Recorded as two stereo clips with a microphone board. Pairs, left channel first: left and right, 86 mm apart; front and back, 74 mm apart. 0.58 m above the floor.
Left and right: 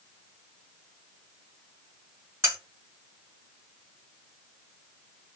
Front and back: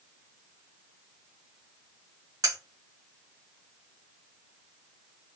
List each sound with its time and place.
2.4 s cutlery clinking: 145° right, 1.4 m